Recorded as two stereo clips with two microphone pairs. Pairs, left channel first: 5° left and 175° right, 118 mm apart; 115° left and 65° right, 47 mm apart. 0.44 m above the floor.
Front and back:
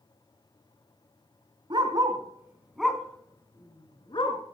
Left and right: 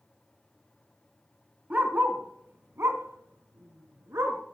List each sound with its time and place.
1.7 s a dog barking: 125° right, 1.3 m; by 4.4 s 40° right, 1.6 m